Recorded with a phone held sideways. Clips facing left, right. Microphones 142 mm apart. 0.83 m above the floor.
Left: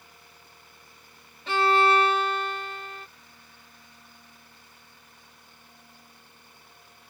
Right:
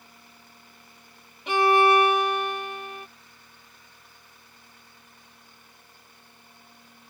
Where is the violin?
15° right (ahead or behind).